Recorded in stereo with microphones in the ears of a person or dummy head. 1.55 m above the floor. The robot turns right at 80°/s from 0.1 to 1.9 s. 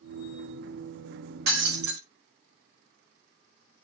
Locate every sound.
1.5 s breaking glass: 105° right, 1.7 m; by 2.0 s 70° right, 1.7 m